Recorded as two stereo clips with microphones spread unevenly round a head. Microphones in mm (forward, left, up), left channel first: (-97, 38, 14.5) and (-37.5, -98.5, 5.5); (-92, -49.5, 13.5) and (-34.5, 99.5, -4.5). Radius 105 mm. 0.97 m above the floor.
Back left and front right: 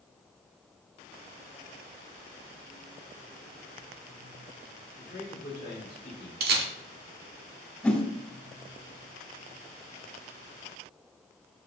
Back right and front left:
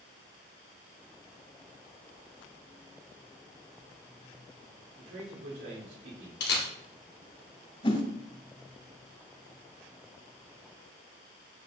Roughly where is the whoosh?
Behind.